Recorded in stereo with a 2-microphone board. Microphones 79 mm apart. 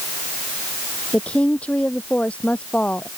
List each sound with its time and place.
1.1 s a woman speaking: 15° left (ahead or behind)